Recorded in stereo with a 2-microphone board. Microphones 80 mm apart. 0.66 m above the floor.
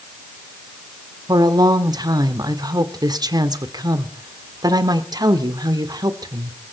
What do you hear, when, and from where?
1.3 s a woman speaking: 55° right (ahead or behind), 1.5 m